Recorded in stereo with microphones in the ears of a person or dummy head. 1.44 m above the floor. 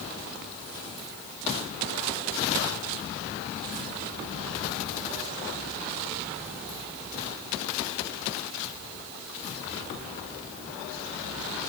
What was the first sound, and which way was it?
Only background noise.